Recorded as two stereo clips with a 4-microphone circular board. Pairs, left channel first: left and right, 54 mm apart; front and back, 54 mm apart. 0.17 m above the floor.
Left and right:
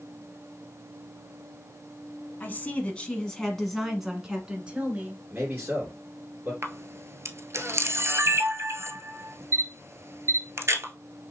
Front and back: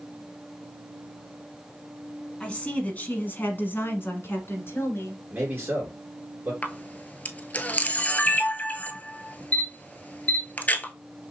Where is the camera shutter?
60° right, 0.6 m.